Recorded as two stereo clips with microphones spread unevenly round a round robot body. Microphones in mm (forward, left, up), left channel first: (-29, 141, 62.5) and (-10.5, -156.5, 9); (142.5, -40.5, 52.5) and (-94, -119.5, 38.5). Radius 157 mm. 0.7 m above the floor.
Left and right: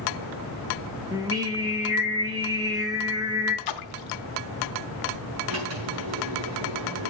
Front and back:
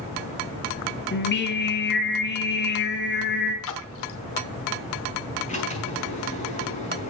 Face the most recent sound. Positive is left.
turn(degrees=-45)